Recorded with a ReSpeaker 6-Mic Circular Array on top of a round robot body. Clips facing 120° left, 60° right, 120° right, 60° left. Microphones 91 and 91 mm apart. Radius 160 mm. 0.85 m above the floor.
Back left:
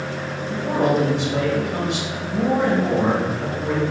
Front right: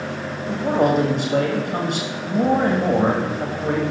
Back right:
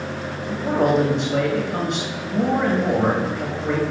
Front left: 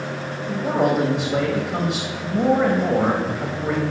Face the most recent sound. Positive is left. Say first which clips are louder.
# front right 2 dB, back right 1 dB
turn(degrees=-10)